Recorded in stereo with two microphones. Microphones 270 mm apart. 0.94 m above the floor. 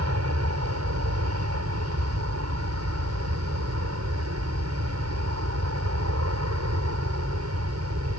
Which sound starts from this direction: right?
An aircraft, at 0.0 s.